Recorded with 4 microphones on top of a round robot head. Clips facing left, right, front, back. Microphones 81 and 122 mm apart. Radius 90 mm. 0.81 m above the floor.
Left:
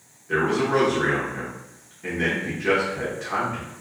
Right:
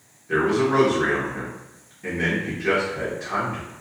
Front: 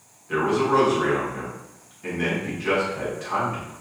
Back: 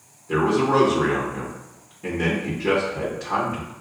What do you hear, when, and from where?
0.3 s a man speaking: 170° right, 0.9 m